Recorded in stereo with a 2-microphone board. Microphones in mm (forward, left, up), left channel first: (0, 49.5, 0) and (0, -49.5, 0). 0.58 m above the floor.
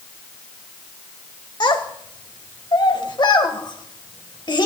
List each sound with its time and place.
1.6 s a child speaking: 50° left (ahead or behind), 1.7 m